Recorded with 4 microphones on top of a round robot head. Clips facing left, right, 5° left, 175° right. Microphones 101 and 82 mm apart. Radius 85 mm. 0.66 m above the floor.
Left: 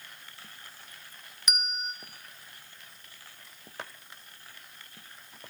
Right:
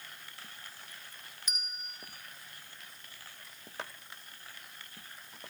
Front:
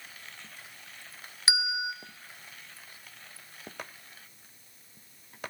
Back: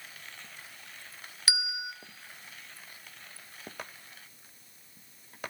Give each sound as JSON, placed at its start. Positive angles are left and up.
{"t": 1.5, "sound": "a bell", "azimuth_deg": 75, "distance_m": 2.5}